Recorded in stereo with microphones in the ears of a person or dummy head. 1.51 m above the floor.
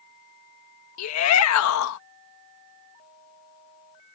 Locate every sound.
1.0 s a shout: 85° left